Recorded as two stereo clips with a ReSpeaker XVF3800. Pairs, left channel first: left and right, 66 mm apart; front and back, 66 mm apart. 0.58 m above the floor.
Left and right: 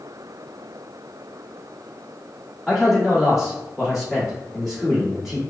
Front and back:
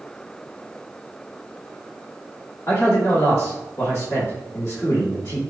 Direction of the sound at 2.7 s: 5° right.